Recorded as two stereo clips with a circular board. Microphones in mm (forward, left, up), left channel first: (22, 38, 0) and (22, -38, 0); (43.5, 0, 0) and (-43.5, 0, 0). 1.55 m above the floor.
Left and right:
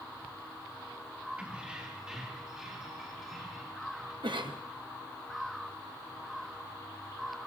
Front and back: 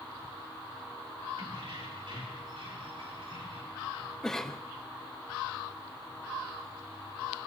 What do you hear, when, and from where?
1.4 s keys jangling: 165° right, 2.5 m; by 4.1 s 175° right, 6 m
4.2 s a cough: 85° right, 1.1 m